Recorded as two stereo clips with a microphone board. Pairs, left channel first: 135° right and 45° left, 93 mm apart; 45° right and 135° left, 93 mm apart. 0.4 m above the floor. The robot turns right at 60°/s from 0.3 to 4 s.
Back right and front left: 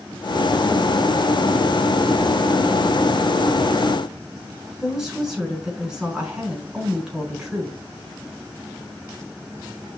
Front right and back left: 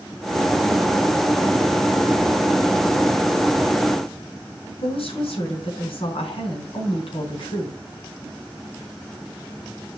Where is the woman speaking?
40° right, 5 m.